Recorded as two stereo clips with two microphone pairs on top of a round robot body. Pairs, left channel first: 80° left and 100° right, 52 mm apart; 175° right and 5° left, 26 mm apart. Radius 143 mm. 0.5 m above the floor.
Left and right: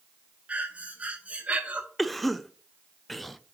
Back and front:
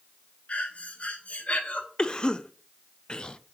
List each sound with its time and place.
0.5 s breathing: 160° right, 1.1 m
2.0 s a cough: 170° left, 0.7 m